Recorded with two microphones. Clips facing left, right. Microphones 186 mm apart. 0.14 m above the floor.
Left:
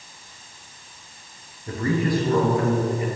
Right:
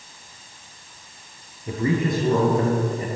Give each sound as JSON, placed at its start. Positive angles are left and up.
{"t": 1.7, "sound": "a man speaking", "side_deg": -15, "distance_m": 2.0}